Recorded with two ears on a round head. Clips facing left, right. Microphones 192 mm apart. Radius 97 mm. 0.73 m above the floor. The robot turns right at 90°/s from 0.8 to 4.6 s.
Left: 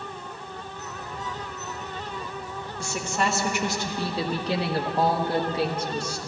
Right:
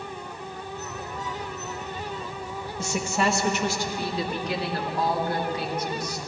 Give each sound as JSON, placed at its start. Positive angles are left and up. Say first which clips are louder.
{"t": 2.8, "sound": "a woman speaking", "louder": "right 2 dB", "side_deg": -20, "distance_m": 0.9}